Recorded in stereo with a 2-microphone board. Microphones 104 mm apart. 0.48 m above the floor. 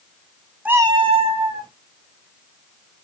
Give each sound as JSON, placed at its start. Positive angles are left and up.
{"t": 0.7, "sound": "a cat meowing", "side_deg": -10, "distance_m": 0.5}